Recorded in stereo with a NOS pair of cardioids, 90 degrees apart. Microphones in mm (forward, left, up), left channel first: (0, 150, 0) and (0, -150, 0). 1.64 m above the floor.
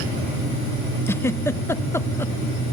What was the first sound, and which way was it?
A giggle, 10° left.